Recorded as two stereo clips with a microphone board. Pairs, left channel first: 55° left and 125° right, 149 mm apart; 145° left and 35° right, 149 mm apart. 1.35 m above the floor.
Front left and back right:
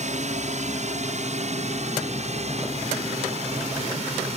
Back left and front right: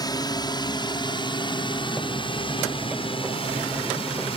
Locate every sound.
0.0 s a drone: 155° right; by 4.4 s 165° right